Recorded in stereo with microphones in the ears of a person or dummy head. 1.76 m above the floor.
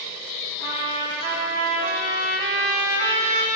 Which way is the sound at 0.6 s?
55° right (ahead or behind).